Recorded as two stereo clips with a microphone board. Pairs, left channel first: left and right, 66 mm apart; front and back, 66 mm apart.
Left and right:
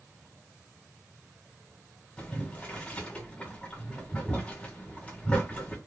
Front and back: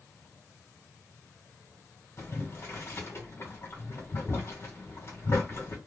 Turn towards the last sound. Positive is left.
turn(degrees=25)